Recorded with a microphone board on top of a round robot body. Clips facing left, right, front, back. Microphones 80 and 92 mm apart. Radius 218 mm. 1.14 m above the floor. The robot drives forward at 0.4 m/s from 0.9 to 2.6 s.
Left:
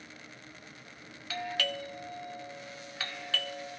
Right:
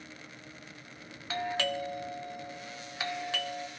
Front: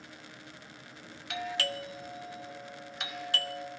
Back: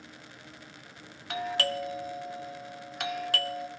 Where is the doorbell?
140° right, 0.8 m; by 3.7 s 155° right, 1.2 m.